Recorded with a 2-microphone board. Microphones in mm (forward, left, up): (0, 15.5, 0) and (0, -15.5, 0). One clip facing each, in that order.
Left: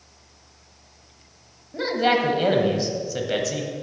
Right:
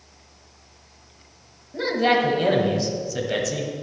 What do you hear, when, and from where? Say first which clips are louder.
1.7 s a man speaking: right 1 dB; 10° left (ahead or behind), 1.5 m